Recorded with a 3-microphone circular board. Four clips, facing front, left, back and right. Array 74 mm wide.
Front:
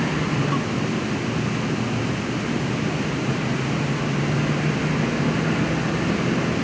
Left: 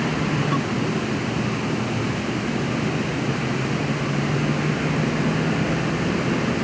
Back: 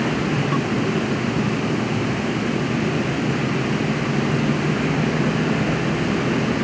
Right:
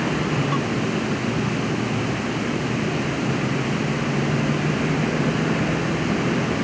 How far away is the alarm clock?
I don't hear an alarm clock.